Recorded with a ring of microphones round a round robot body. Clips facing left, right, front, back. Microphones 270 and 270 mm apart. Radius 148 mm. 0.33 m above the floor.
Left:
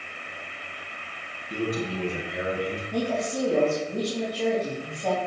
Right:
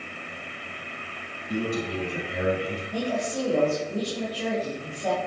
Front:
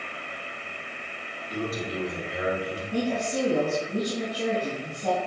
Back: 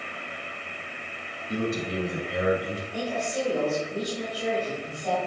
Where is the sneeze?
I don't hear a sneeze.